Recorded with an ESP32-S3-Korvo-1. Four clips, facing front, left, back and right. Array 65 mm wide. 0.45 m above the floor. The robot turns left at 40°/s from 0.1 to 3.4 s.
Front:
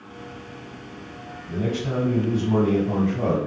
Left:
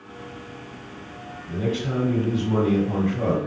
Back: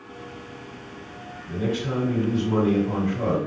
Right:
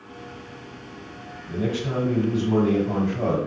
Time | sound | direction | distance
1.5 | a man speaking | straight behind | 1.9 m